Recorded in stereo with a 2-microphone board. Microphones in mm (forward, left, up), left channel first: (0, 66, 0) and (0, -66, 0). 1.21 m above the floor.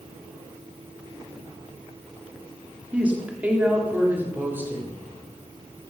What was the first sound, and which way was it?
A woman speaking, 10° right (ahead or behind).